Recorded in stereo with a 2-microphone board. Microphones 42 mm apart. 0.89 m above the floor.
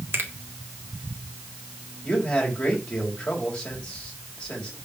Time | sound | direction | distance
0.1 | a finger snap | 65° right (ahead or behind) | 1.8 m
2.0 | a man speaking | 25° left (ahead or behind) | 4 m